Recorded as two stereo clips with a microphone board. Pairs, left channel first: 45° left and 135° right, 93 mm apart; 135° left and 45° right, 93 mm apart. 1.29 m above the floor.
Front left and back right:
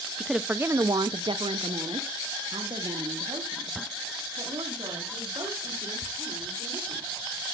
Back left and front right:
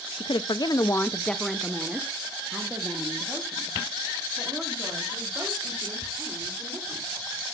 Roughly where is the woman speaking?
Behind left.